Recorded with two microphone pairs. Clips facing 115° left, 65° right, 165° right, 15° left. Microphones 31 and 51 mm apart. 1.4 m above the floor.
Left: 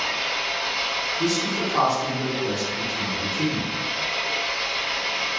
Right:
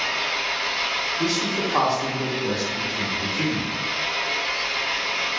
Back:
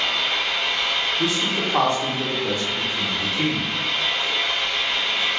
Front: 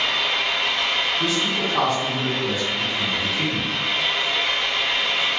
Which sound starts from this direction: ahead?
An engine running, at 0.0 s.